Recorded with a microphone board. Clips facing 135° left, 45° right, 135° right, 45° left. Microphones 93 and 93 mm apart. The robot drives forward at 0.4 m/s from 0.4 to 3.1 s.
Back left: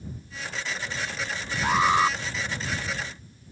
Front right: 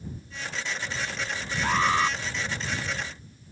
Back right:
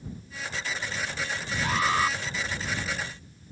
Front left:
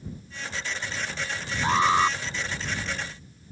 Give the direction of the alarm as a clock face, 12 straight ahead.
10 o'clock.